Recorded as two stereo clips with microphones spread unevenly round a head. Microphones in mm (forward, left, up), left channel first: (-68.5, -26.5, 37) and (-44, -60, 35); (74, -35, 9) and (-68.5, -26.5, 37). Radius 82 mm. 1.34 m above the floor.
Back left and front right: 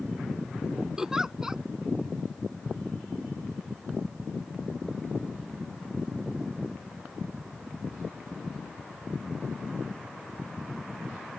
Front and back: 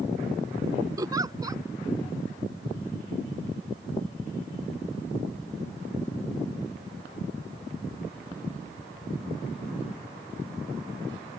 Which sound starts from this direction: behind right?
A giggle, at 1.0 s.